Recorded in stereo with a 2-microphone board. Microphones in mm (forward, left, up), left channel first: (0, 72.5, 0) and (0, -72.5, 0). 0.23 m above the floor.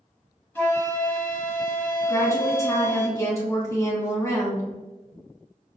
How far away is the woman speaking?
About 1.4 m.